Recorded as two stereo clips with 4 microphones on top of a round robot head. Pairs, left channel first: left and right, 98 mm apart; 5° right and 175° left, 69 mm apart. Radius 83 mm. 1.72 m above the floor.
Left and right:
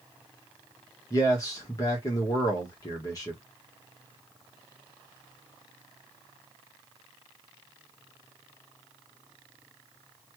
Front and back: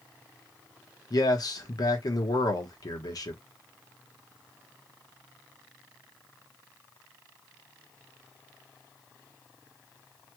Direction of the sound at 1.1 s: 30° left.